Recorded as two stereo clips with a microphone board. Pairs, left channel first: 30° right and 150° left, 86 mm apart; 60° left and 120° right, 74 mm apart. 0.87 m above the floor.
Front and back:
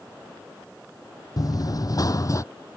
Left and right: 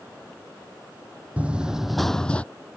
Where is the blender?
No blender in this recording.